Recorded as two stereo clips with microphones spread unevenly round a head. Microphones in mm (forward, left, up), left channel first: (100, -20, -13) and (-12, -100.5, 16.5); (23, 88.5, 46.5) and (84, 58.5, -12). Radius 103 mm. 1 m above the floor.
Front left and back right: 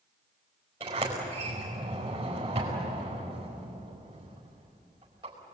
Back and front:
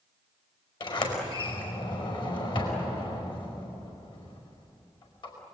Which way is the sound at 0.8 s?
145° left.